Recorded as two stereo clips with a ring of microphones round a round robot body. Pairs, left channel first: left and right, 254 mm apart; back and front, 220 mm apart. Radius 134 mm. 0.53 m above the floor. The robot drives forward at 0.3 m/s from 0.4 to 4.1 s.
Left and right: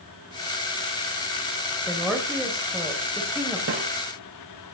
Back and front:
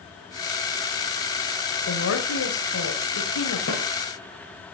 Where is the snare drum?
135° right, 6 m.